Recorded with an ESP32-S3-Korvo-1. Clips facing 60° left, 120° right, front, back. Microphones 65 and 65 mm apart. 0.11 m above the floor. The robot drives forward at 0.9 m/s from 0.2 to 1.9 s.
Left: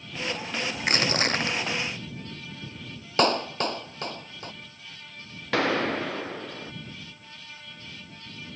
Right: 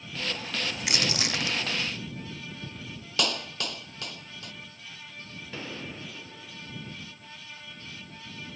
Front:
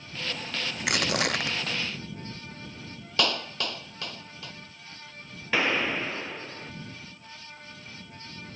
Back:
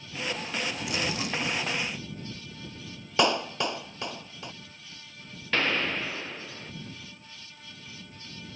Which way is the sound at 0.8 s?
10° left.